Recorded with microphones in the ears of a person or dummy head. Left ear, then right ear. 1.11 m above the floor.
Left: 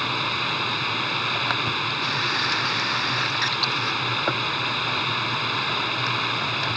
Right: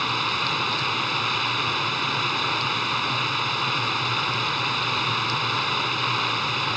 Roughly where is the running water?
Centre.